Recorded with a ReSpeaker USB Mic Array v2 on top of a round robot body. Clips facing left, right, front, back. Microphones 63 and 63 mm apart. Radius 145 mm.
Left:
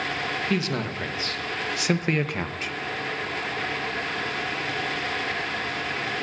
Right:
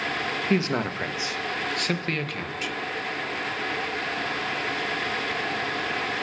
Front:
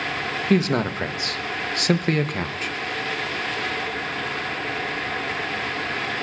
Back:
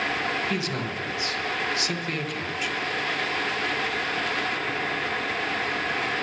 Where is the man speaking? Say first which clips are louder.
Right 2 dB, front 8 dB; 35° right, 1.3 m; by 2.8 s 45° left, 1.1 m.